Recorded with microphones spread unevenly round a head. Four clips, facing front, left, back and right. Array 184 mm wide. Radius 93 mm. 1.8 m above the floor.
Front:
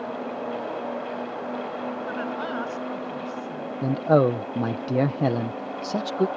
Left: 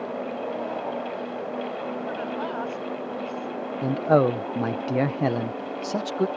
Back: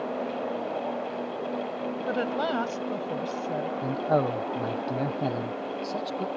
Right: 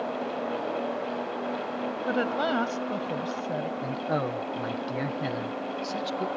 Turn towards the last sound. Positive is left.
turn(degrees=30)